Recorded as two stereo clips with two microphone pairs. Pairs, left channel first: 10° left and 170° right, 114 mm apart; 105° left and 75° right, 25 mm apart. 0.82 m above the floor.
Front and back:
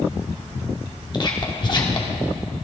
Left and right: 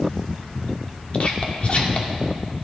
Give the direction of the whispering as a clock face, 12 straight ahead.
10 o'clock.